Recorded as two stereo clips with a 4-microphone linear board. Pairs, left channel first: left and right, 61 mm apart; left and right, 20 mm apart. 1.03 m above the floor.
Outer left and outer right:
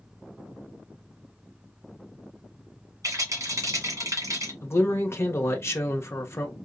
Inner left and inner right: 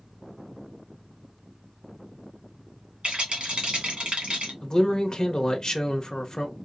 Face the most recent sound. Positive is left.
turn(degrees=40)  # may be behind; listen again after turning